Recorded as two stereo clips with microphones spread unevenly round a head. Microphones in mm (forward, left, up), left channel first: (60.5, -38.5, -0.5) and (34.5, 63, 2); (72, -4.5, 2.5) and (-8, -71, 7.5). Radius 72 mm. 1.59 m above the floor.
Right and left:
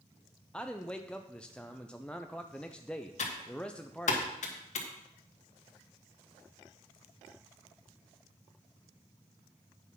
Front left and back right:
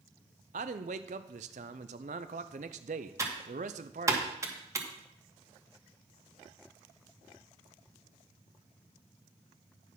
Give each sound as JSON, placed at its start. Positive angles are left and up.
{"t": 0.5, "sound": "a man speaking", "azimuth_deg": -160, "distance_m": 0.6}
{"t": 3.2, "sound": "typing on a keyboard", "azimuth_deg": -80, "distance_m": 1.6}